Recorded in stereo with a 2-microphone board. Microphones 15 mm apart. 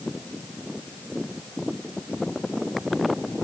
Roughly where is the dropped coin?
No dropped coin in this recording.